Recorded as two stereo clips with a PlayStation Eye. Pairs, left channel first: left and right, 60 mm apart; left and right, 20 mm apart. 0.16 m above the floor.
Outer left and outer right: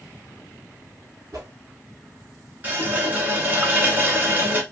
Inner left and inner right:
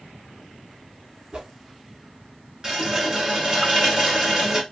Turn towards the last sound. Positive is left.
turn(degrees=-30)  # may be behind; listen again after turning